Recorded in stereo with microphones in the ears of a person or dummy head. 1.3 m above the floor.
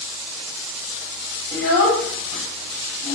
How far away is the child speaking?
About 0.8 m.